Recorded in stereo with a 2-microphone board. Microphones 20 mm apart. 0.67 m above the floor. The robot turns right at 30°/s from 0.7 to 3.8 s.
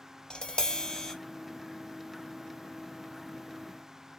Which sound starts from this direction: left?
Tapping, at 0.3 s.